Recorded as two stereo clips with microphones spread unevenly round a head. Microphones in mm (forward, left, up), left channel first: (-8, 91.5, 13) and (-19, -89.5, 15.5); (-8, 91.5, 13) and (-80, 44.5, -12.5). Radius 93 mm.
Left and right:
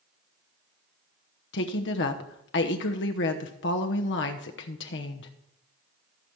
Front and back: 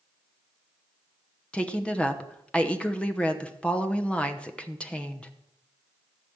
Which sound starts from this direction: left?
A woman speaking, at 1.5 s.